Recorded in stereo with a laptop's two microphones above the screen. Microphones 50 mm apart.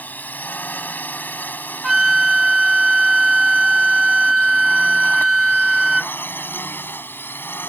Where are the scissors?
No scissors in this recording.